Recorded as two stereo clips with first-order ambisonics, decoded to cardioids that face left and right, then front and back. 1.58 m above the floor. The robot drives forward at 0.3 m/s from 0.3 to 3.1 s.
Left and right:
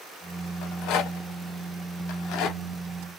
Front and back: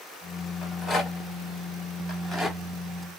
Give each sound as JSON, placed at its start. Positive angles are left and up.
{"t": 0.6, "sound": "a rattle", "azimuth_deg": 70, "distance_m": 2.0}